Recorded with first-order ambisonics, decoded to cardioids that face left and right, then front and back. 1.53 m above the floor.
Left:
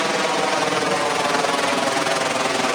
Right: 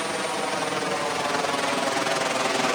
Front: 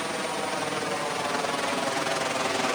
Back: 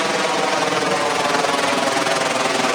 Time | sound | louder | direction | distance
0.0 | a helicopter | left 7 dB, back 11 dB | 145° left | ?